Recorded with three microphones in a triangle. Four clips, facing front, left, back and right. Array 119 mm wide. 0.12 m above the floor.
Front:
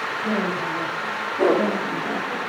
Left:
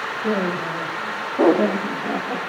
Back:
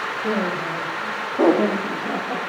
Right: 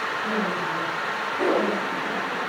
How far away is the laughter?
About 9 m.